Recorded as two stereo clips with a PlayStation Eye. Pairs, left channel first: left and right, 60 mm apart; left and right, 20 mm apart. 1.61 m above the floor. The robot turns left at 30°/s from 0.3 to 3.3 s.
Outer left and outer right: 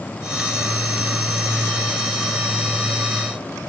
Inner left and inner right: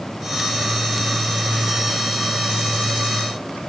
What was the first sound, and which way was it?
Only background noise.